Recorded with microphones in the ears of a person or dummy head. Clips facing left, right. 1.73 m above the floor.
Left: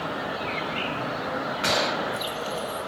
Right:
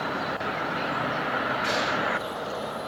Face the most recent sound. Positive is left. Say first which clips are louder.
# left 1 dB
turn(degrees=50)  # may be behind; listen again after turning